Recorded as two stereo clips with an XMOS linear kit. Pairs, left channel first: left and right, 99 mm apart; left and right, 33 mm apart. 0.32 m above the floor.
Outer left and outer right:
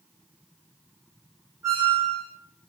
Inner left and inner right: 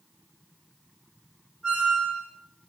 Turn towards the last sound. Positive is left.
turn(degrees=-30)  # may be behind; listen again after turning